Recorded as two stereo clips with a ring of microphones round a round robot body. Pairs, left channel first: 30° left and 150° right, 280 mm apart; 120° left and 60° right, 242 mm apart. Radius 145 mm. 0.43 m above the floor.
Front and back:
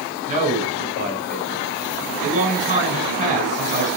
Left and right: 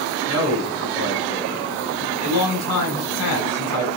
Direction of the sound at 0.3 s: 145° left.